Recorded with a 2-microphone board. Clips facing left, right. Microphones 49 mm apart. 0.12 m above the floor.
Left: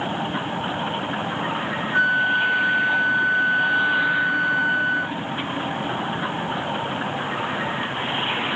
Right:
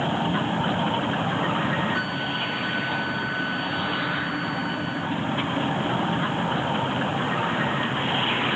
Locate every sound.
1.9 s a flute: 35° left (ahead or behind), 2.5 m